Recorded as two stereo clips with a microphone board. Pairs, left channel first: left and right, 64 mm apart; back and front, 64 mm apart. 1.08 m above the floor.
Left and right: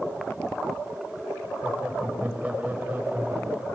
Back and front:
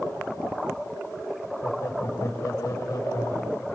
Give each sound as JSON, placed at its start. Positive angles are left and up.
{"t": 1.6, "sound": "laughter", "azimuth_deg": -160, "distance_m": 4.5}